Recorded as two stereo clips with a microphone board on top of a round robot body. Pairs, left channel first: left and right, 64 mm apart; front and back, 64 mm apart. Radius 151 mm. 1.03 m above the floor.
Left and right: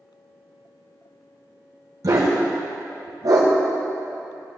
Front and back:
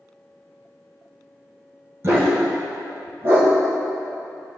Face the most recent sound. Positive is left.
turn(degrees=-125)